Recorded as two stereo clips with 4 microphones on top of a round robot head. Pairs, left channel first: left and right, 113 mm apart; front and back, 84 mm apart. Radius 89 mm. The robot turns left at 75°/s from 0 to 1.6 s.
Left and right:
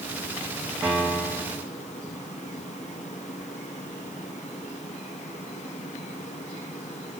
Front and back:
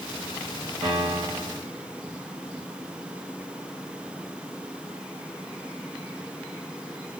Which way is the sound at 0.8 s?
170° right.